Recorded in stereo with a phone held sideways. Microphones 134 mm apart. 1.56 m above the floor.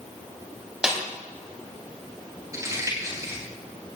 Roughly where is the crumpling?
Right.